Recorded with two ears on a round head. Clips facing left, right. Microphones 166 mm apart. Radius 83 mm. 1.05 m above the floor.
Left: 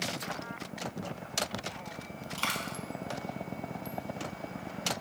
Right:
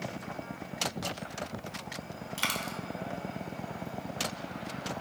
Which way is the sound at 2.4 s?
15° right (ahead or behind).